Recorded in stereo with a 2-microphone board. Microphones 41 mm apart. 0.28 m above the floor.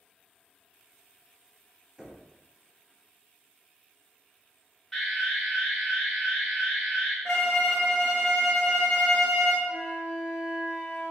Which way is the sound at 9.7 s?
60° right (ahead or behind).